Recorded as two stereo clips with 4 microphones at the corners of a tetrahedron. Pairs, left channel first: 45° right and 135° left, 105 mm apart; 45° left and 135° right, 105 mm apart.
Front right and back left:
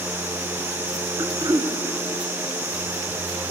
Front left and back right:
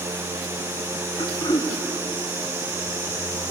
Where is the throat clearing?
80° left, 1.5 m.